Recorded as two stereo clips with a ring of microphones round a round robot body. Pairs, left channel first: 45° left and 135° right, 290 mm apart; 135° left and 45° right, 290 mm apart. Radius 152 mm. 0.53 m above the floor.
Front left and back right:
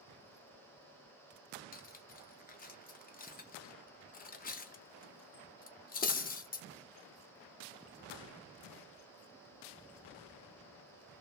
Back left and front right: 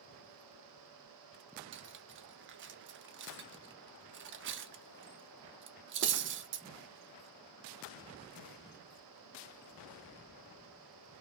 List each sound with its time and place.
1.7 s cutlery clinking: 10° right, 0.6 m